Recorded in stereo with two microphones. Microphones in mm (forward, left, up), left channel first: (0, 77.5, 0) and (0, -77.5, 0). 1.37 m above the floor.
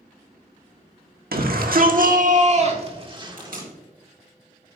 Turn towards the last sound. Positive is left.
turn(degrees=-70)  # may be behind; listen again after turning